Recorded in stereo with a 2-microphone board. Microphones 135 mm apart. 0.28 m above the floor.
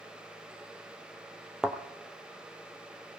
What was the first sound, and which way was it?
A thud, 5° right (ahead or behind).